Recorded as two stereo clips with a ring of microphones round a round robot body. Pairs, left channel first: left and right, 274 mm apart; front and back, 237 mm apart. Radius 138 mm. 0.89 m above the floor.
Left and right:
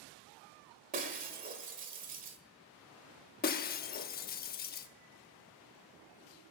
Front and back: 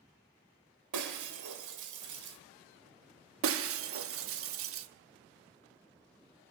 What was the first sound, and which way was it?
Breaking glass, 155° right.